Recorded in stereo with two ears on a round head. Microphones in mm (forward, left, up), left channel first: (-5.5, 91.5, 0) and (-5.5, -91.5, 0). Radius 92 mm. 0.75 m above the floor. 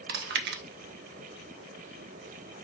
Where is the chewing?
55° right (ahead or behind), 0.7 m.